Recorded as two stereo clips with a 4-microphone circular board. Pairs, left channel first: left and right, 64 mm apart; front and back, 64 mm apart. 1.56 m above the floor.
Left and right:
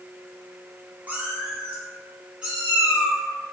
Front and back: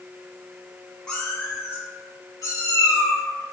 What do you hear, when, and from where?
1.1 s a cat meowing: 65° right, 0.8 m; by 3.2 s 15° right, 1.7 m